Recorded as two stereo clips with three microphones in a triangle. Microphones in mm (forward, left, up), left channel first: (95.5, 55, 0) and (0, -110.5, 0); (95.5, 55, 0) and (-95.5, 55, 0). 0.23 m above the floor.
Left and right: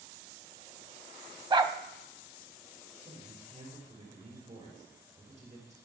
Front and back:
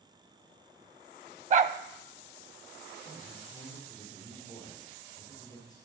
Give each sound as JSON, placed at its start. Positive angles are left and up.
{"t": 1.5, "sound": "a dog barking", "azimuth_deg": -170, "distance_m": 0.5}
{"t": 3.0, "sound": "a man speaking", "azimuth_deg": -70, "distance_m": 6.5}